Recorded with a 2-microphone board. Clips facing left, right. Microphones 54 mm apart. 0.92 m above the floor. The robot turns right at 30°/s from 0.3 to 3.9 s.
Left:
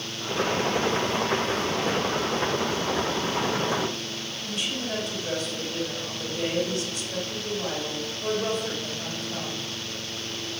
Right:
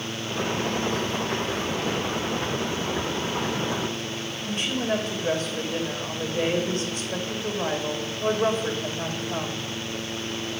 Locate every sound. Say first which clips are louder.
4.4 s a woman speaking: right 5 dB; 45° right (ahead or behind), 2.5 m